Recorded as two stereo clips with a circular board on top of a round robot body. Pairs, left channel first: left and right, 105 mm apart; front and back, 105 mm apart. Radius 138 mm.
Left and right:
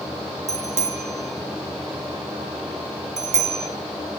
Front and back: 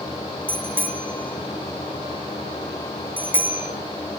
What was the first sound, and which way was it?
A bicycle bell, 105° right.